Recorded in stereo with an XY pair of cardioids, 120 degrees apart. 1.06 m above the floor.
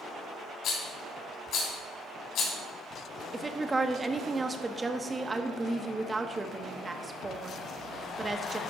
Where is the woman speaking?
20° right, 0.9 m.